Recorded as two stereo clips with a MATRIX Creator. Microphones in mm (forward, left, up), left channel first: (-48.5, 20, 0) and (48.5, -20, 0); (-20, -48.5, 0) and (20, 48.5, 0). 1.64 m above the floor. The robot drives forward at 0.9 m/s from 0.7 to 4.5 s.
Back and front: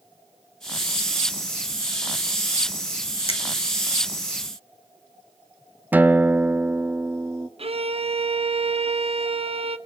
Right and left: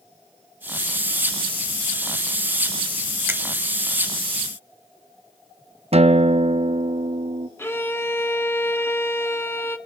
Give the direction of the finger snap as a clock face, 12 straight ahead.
7 o'clock.